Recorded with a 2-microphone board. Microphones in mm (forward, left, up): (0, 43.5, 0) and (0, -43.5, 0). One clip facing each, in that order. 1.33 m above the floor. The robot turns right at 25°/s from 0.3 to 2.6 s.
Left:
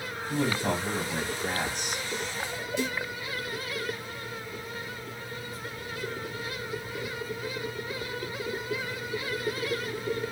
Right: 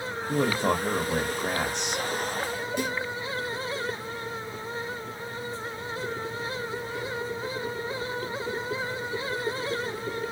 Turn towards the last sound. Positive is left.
turn(degrees=-55)  # may be behind; listen again after turning